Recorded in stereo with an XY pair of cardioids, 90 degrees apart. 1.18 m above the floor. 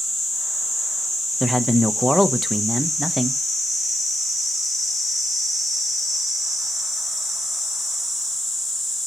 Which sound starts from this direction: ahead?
A man speaking, at 1.4 s.